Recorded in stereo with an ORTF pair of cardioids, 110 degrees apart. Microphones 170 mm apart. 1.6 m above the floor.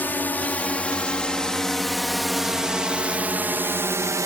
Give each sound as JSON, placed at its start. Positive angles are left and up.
{"t": 0.0, "sound": "a drone", "azimuth_deg": 10}